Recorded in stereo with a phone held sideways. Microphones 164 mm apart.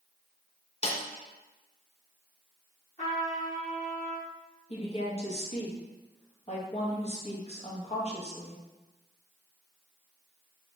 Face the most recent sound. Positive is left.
turn(degrees=40)  # may be behind; listen again after turning